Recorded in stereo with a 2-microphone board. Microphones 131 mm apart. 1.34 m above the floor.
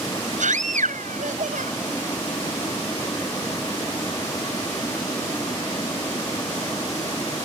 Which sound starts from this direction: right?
A scream, at 0.4 s.